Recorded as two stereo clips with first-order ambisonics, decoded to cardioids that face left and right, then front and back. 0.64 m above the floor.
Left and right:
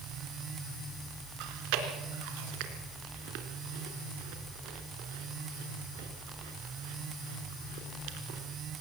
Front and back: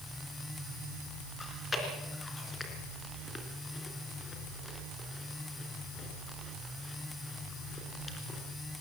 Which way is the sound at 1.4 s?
75° right.